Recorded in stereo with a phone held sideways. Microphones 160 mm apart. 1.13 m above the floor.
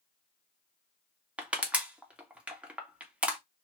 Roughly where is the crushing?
Centre.